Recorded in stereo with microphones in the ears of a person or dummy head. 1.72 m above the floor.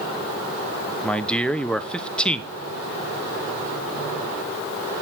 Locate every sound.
1.0 s a man speaking: centre (ahead or behind), 1.0 m